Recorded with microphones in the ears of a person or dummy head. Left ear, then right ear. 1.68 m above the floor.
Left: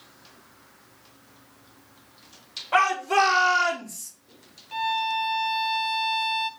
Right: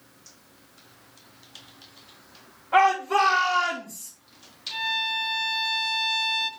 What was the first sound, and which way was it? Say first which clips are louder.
A shout: right 1 dB; 60° left (ahead or behind).